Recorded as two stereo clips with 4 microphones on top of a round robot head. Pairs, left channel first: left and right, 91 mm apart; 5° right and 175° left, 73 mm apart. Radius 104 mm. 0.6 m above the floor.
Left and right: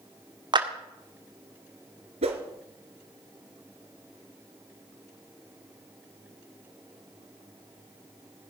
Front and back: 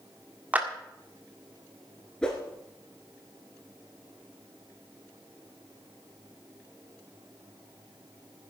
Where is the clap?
115° right, 1.8 m.